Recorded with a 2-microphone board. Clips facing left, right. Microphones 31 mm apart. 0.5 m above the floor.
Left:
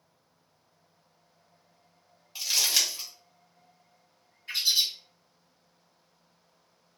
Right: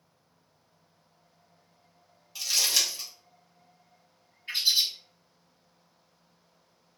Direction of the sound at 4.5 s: 30° right (ahead or behind).